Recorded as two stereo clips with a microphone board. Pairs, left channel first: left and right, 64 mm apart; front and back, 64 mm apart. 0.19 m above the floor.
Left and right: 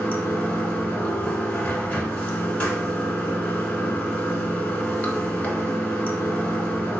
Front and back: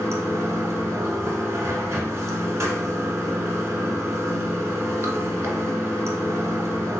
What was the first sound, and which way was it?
Running water, 150° left.